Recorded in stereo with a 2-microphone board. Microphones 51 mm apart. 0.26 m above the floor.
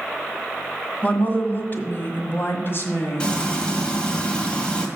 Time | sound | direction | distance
1.0 | a woman speaking | 30° left (ahead or behind) | 1.5 m
3.2 | frying | 20° left (ahead or behind) | 1.6 m